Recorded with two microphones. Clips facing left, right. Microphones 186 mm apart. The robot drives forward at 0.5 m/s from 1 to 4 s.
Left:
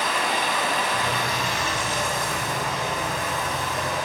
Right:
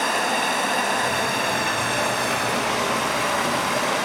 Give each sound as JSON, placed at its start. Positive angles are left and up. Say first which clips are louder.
{"t": 0.0, "sound": "running water", "louder": "right 2 dB", "side_deg": -45, "distance_m": 1.7}